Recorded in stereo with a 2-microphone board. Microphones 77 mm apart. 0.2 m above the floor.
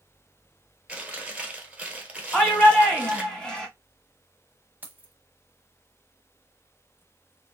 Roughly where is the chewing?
Centre.